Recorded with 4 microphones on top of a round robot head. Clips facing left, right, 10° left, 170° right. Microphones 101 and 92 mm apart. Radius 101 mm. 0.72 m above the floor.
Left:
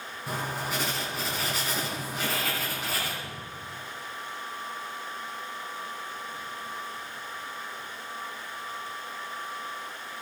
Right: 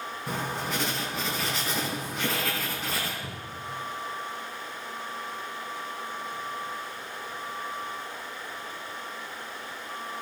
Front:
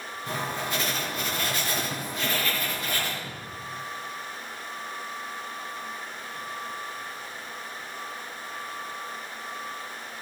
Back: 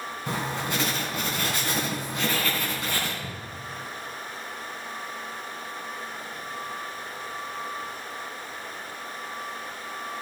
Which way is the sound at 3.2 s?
140° right.